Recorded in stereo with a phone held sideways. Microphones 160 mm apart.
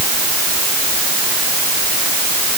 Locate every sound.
Only background noise.